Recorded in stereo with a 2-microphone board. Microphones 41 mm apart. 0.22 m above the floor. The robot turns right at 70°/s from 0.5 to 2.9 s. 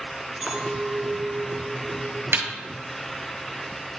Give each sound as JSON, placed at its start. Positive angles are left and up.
{"t": 0.4, "sound": "a clink", "azimuth_deg": -145, "distance_m": 1.4}
{"t": 2.3, "sound": "a snare drum", "side_deg": -80, "distance_m": 1.2}